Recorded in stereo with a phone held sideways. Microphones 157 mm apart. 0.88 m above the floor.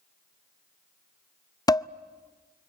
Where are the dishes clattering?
25° left (ahead or behind), 0.5 m.